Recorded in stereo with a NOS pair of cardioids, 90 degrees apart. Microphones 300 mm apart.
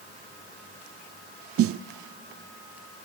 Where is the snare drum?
50° right, 0.5 m.